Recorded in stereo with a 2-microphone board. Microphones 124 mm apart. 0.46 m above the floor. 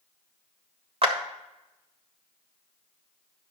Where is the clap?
50° right (ahead or behind), 1.4 m.